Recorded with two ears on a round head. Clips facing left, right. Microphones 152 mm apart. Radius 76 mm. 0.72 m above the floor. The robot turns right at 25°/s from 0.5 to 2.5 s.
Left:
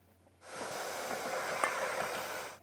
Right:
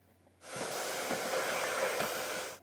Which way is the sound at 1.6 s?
75° left (ahead or behind).